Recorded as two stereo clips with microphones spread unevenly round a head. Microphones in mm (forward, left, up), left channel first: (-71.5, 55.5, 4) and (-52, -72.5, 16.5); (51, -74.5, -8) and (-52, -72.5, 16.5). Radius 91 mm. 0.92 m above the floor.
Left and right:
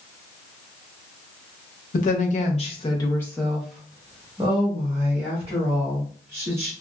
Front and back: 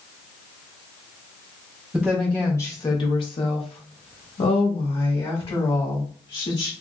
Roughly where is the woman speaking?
Left.